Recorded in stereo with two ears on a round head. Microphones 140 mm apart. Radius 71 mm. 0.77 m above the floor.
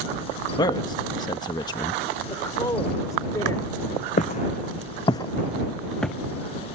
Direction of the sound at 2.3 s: 20° left (ahead or behind).